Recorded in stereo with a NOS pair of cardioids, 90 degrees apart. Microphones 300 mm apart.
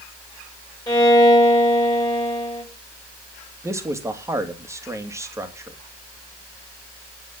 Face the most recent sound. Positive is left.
turn(degrees=-10)